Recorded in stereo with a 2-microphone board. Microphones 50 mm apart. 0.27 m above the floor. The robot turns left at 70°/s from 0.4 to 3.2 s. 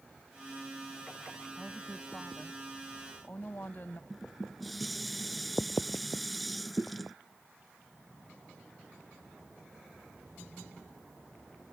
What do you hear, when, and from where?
1.6 s a woman speaking: 175° right; by 4.0 s 70° left
4.1 s dishes clattering: centre (ahead or behind)